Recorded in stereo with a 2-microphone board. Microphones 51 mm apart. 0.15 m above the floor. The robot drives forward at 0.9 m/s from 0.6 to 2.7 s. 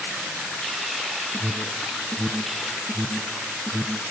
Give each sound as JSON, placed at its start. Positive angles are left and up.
{"t": 1.3, "sound": "an alarm", "side_deg": -25, "distance_m": 2.5}